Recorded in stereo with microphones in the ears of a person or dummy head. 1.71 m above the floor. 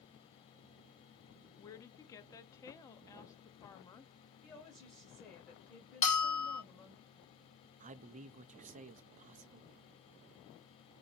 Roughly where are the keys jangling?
No keys jangling in this recording.